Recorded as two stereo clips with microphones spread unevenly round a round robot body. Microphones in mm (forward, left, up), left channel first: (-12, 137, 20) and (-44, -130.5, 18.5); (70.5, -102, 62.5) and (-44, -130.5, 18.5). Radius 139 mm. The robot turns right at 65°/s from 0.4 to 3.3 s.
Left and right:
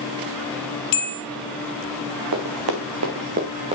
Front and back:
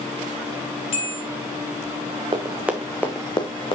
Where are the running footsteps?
115° right, 2 m; by 3.8 s 25° right, 1.7 m.